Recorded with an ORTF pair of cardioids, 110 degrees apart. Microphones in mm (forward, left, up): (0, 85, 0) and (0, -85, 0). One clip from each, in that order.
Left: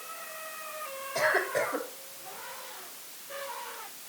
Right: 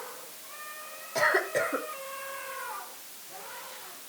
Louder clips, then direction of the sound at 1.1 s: Right 1 dB; 20° right.